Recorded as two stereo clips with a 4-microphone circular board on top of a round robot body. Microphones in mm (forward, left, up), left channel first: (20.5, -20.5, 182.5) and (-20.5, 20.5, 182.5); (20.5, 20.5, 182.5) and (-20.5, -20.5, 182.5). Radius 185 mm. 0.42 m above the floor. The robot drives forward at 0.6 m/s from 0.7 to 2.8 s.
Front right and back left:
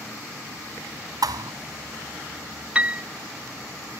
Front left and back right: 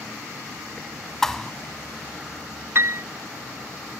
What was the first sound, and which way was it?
A thud, 125° left.